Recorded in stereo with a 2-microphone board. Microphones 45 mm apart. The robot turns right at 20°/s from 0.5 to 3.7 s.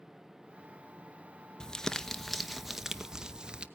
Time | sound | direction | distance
1.6 | crumpling | 165° left | 0.7 m